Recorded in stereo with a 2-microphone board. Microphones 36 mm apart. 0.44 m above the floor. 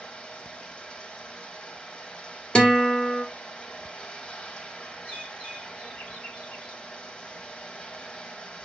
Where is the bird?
40° left (ahead or behind), 1.2 m.